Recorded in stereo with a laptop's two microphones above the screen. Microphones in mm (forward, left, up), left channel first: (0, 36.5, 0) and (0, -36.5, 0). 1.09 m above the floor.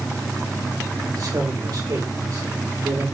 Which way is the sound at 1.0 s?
60° right (ahead or behind).